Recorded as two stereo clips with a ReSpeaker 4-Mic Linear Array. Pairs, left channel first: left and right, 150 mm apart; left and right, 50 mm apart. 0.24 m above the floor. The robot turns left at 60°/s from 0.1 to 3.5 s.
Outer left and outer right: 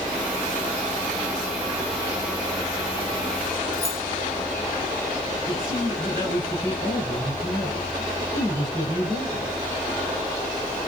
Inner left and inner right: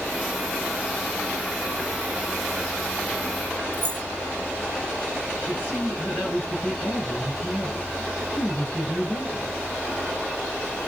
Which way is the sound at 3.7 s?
40° right (ahead or behind).